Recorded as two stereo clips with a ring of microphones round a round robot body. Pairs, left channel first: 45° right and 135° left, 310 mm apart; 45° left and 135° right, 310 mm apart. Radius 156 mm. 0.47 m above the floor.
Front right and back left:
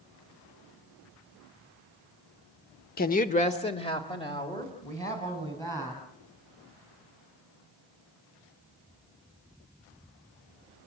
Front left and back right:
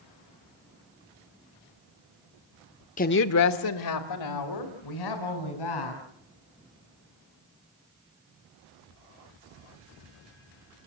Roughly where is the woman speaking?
Ahead.